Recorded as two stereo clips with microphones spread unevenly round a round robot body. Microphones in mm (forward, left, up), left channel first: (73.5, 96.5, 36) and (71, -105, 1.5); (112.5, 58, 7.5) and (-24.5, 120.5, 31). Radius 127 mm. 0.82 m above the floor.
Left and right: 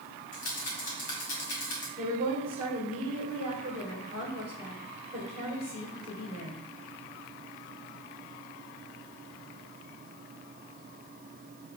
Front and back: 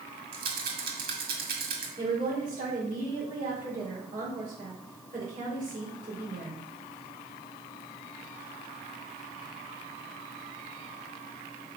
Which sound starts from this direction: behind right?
A woman speaking, at 2.0 s.